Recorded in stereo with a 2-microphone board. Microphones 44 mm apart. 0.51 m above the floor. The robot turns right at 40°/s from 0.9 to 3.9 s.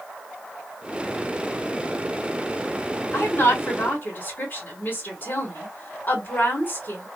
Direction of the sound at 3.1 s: 100° left.